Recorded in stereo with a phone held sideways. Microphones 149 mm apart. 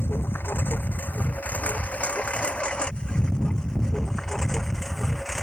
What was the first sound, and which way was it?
A lawn mower, 15° left (ahead or behind).